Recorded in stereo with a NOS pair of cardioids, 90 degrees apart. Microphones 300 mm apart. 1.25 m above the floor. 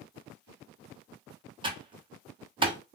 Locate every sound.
1.6 s typing on a keyboard: 15° right, 1.0 m